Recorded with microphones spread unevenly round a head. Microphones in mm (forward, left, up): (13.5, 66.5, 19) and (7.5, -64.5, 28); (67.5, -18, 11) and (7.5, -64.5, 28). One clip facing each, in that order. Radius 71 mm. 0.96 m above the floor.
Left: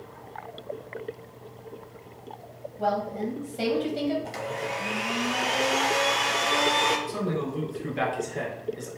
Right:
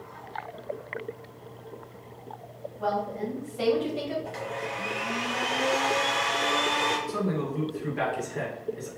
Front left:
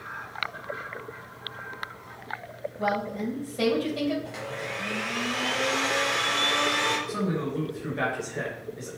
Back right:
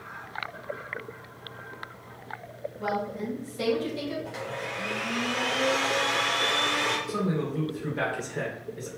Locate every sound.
2.8 s a woman speaking: 25° left, 1.5 m
4.2 s a blender: 130° left, 1.3 m
7.1 s a man speaking: 150° left, 2.5 m